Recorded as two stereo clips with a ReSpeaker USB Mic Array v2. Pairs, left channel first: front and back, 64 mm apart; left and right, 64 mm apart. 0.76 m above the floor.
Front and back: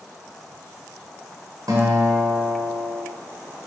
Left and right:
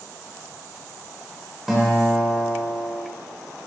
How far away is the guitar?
About 1.8 m.